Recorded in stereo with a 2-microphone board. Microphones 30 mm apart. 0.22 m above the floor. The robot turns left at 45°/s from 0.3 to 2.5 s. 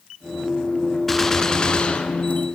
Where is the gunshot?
170° left, 3 m; by 2.5 s 110° left, 3 m.